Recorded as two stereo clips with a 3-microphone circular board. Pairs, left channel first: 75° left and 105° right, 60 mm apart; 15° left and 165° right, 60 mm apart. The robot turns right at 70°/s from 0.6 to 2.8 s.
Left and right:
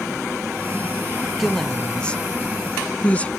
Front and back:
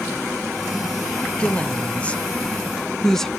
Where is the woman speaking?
15° right, 0.5 m; by 3.3 s 85° left, 0.5 m.